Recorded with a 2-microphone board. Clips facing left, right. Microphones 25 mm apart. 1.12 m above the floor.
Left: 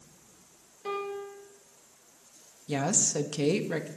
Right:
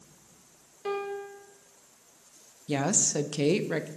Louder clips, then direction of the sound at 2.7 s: Right 1 dB; 10° right (ahead or behind).